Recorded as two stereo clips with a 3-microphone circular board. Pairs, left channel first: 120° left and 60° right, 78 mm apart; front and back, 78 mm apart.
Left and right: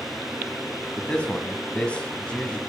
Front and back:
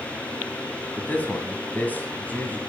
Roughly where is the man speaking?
Ahead left.